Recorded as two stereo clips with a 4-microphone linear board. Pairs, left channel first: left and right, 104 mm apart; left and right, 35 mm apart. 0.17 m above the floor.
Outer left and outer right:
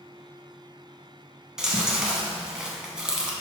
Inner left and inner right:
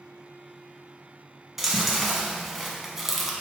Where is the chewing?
5° right (ahead or behind), 0.8 m.